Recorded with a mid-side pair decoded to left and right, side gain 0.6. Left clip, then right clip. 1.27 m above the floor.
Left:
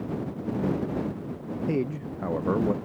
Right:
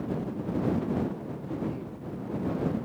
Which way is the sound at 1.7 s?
65° left.